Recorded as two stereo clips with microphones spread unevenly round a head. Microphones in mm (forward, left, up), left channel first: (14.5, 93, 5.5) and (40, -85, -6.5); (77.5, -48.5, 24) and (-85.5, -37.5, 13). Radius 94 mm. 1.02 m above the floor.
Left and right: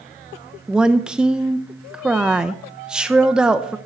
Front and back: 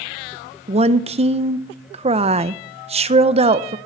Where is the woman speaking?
160° right, 0.6 m.